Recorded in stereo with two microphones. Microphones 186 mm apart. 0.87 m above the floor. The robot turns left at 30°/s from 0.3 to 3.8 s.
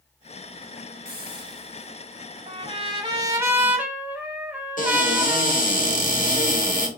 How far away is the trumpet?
About 0.9 m.